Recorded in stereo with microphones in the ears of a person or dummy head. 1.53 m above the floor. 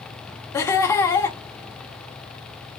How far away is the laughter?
About 0.9 m.